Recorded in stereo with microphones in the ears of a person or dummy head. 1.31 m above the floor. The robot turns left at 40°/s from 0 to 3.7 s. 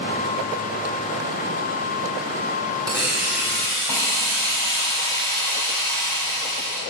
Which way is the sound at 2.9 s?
165° right.